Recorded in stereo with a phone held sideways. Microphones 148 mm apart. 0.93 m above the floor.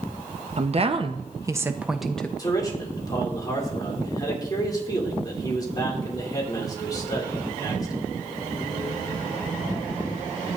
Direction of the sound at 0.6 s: 50° right (ahead or behind).